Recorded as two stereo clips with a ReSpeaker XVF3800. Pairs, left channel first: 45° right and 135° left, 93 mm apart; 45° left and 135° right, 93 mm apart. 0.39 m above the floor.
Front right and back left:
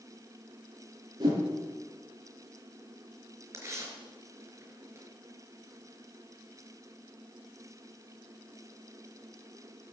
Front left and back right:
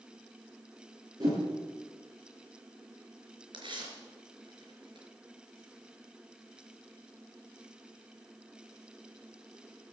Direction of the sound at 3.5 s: 165° right.